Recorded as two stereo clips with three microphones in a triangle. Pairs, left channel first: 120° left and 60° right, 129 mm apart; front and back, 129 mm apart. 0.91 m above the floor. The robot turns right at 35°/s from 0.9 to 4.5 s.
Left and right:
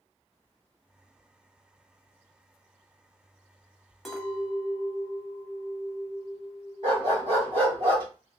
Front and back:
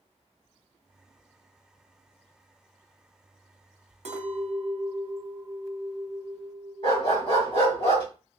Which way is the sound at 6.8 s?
30° right.